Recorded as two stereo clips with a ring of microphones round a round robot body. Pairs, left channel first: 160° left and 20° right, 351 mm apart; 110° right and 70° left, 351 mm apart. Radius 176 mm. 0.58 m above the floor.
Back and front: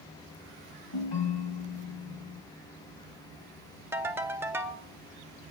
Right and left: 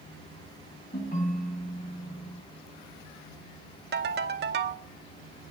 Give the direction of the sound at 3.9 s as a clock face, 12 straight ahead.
10 o'clock.